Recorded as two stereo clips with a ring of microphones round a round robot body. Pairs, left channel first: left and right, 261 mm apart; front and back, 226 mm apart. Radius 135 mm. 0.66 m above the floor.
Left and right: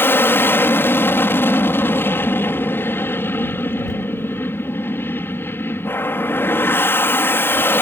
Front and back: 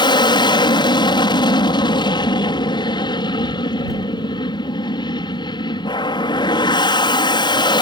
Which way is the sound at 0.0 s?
20° left.